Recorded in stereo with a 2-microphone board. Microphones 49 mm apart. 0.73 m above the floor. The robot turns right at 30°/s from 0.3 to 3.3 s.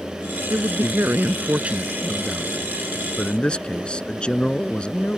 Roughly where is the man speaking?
Ahead right.